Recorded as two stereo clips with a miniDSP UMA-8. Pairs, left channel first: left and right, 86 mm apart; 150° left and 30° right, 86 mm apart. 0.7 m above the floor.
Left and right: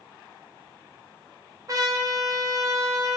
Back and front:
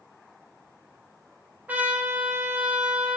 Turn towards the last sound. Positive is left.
turn(degrees=-90)